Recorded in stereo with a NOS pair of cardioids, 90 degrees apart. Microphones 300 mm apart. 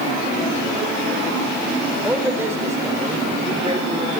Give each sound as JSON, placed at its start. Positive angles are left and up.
{"t": 2.0, "sound": "a man speaking", "azimuth_deg": -5, "distance_m": 4.0}